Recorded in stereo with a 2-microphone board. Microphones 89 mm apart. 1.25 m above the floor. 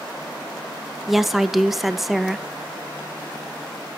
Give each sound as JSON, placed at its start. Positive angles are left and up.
{"t": 1.1, "sound": "a woman speaking", "side_deg": 0, "distance_m": 1.0}